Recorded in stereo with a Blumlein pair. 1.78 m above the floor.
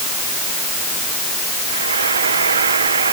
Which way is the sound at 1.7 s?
70° right.